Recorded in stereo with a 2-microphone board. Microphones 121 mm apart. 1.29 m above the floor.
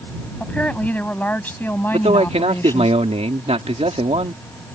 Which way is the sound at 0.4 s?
10° left (ahead or behind).